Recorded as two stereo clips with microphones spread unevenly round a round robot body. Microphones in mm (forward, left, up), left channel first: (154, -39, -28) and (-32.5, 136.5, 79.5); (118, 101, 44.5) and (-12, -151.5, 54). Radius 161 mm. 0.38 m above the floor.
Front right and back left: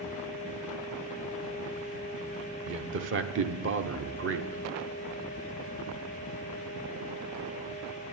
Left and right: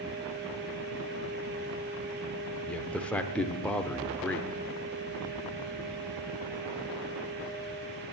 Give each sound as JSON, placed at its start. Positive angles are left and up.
{"t": 2.7, "sound": "a man speaking", "azimuth_deg": 135, "distance_m": 0.9}